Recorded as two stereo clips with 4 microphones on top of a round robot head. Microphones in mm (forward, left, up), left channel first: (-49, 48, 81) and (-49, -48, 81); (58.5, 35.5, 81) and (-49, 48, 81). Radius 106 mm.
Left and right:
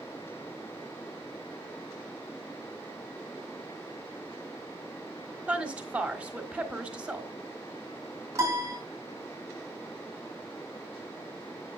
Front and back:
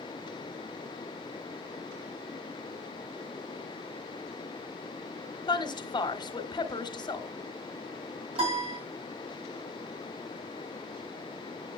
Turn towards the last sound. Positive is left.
turn(degrees=-150)